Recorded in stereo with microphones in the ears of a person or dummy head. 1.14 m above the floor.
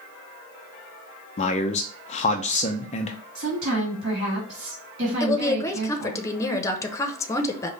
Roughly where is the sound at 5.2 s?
Centre.